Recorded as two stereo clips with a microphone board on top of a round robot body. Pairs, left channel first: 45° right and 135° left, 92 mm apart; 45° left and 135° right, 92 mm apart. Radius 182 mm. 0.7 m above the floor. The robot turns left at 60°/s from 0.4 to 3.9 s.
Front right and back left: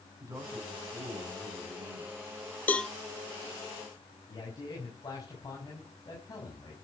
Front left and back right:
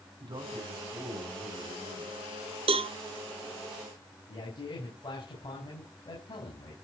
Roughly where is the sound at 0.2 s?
Behind.